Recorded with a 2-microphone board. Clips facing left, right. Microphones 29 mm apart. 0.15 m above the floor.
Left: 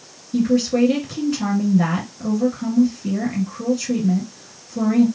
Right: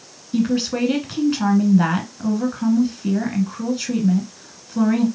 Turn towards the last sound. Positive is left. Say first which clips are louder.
# left 3 dB
turn(degrees=-35)  # may be behind; listen again after turning